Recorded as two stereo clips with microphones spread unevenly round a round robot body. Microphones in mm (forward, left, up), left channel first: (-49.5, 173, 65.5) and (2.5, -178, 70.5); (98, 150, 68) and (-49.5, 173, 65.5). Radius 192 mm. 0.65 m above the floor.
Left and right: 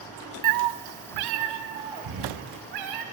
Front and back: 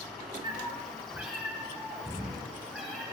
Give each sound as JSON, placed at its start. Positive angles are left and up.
{"t": 0.4, "sound": "a cat meowing", "azimuth_deg": -115, "distance_m": 0.5}